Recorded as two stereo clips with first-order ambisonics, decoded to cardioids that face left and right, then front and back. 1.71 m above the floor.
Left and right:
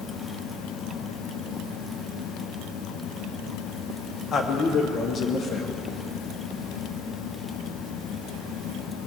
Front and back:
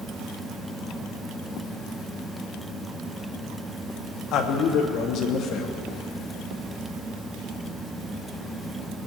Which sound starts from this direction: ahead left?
A man speaking, at 4.3 s.